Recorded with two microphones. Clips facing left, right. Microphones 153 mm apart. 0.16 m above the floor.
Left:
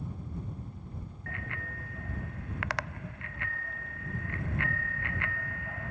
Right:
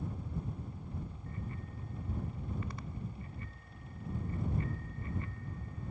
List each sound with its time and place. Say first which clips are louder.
1.3 s a bicycle bell: left 2 dB; 80° left